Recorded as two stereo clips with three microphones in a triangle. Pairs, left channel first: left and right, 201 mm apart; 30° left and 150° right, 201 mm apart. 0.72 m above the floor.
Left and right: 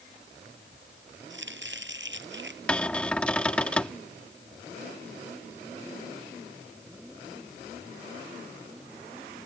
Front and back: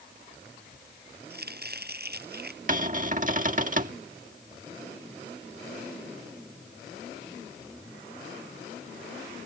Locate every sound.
1.3 s chopping: 115° right
2.7 s a cupboard door: 175° left